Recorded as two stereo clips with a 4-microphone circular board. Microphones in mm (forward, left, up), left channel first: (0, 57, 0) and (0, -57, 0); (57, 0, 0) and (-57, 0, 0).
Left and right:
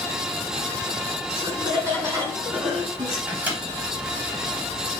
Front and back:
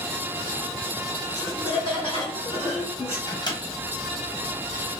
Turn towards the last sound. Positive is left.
turn(degrees=-20)